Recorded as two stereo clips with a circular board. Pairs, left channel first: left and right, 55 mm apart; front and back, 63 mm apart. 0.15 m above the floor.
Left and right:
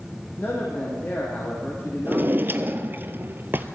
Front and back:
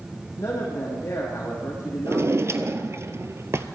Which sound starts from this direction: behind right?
A drawer, at 2.0 s.